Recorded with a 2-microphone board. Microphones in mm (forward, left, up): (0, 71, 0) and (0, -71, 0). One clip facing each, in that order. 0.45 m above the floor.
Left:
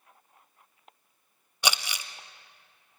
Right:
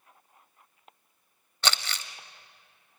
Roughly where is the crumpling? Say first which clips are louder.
Left 1 dB; centre.